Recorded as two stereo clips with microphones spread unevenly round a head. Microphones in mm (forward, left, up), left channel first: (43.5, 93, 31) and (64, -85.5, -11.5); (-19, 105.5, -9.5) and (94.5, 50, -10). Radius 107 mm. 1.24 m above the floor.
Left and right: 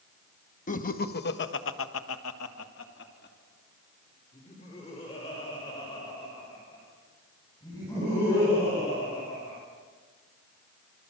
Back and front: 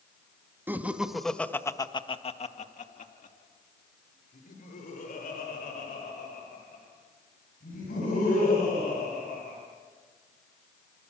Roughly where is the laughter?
Ahead left.